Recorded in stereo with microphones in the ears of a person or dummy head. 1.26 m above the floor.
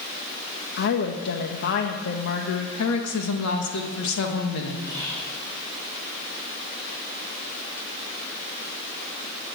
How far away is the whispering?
About 4.5 m.